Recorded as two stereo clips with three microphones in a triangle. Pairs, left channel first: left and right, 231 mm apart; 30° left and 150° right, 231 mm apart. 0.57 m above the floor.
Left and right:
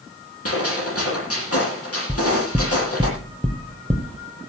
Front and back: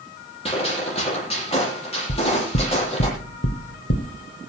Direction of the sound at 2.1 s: 5° left.